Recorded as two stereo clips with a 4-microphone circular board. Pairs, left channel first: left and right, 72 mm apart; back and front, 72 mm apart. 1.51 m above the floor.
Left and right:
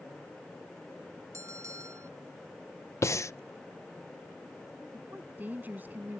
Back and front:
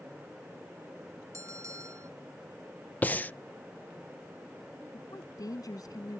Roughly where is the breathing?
Behind left.